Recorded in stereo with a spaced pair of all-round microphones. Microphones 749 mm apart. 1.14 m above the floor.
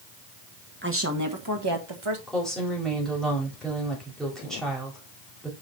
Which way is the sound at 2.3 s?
Centre (ahead or behind).